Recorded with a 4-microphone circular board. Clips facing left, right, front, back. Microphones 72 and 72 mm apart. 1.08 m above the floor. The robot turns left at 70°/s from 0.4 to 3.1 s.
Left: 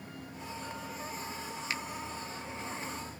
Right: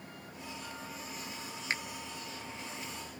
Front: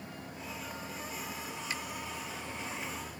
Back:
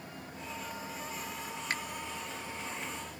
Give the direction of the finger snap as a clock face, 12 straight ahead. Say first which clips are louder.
Right 2 dB, back 4 dB; 5 o'clock.